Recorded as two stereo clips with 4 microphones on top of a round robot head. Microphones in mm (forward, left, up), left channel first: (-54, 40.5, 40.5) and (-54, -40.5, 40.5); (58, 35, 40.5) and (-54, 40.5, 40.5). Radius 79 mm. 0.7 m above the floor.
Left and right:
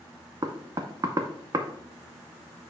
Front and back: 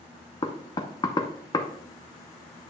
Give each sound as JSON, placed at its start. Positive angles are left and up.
{"t": 0.4, "sound": "knocking", "azimuth_deg": -50, "distance_m": 0.7}